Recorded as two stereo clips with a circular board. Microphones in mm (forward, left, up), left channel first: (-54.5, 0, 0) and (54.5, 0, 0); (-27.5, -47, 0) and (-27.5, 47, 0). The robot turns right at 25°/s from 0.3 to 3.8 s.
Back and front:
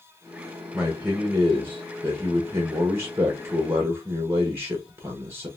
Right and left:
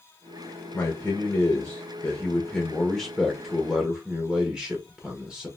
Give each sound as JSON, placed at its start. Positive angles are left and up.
{"t": 0.7, "sound": "a man speaking", "azimuth_deg": -65, "distance_m": 0.8}